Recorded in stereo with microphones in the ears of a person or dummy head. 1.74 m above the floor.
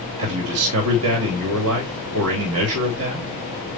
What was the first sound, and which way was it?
A man speaking, 80° right.